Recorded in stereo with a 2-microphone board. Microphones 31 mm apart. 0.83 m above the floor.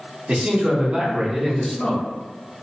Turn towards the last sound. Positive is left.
turn(degrees=25)  # may be behind; listen again after turning